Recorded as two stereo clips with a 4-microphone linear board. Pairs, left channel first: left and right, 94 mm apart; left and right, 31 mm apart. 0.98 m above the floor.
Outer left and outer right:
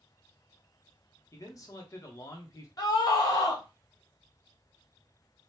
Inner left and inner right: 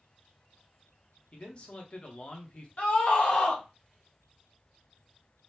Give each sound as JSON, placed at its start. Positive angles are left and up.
{"t": 1.3, "sound": "a man speaking", "side_deg": 35, "distance_m": 0.8}
{"t": 2.8, "sound": "a scream", "side_deg": 40, "distance_m": 1.2}